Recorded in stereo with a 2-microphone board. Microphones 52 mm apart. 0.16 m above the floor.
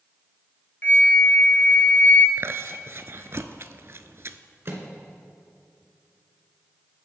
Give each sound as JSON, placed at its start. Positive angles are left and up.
{"t": 0.8, "sound": "a flute", "side_deg": 40, "distance_m": 1.7}
{"t": 2.4, "sound": "chewing", "side_deg": -55, "distance_m": 0.6}
{"t": 4.7, "sound": "a microwave", "side_deg": -50, "distance_m": 1.7}